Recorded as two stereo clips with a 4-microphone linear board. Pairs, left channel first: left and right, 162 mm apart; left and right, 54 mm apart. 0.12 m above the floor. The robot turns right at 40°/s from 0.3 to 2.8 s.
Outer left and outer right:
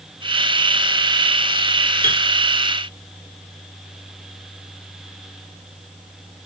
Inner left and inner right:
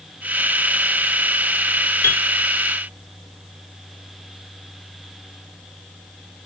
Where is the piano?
45° left (ahead or behind), 2 m.